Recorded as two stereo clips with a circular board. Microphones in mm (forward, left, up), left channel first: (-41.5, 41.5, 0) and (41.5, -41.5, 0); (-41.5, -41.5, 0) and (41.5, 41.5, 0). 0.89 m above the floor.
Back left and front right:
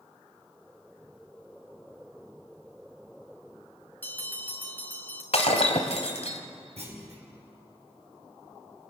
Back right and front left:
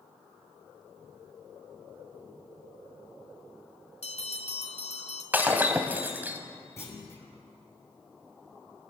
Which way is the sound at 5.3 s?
120° left.